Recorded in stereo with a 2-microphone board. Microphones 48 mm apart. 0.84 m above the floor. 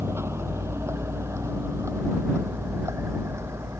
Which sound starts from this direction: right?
A vehicle, at 0.0 s.